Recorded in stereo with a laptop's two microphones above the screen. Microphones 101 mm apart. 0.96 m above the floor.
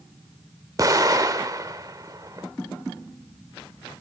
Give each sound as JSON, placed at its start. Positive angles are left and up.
{"t": 0.8, "sound": "an explosion", "side_deg": -35, "distance_m": 0.9}